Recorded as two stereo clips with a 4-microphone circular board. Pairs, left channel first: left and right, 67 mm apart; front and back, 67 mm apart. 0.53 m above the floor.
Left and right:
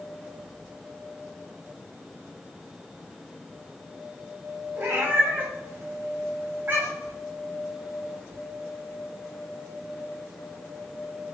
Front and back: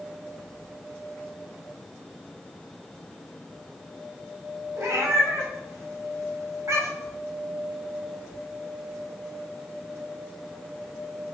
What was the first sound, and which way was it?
A cat meowing, 140° right.